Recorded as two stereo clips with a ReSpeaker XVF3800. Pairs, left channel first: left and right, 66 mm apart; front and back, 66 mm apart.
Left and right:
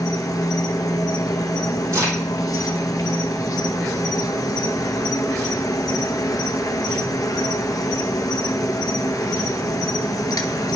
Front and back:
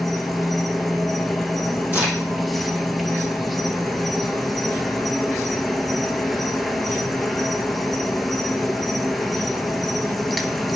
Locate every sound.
0.0 s an insect: 90° left, 0.7 m
1.9 s a crack: 120° right, 4 m